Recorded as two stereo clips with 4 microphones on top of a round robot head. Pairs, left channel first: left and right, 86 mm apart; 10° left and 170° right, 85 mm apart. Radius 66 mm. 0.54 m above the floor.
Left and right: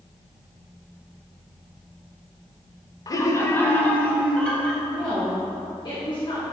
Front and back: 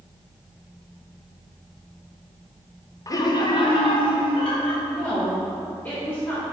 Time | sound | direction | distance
3.1 | laughter | 50° left | 1.1 m
4.8 | a woman speaking | 75° left | 2.5 m